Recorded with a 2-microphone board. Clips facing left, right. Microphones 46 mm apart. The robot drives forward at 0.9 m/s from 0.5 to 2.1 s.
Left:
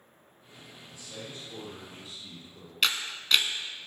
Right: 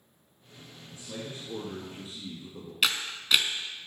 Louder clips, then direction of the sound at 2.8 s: Even; 5° right (ahead or behind).